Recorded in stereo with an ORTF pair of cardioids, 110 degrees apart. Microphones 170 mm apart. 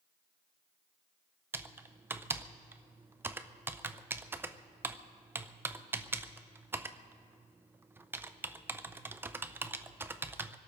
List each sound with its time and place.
1.5 s typing on a keyboard: 15° right, 0.6 m